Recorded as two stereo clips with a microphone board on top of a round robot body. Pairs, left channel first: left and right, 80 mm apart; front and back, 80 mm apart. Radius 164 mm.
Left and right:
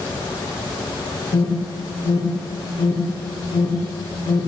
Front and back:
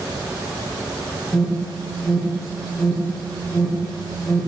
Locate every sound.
1.3 s an alarm: 85° left, 2.5 m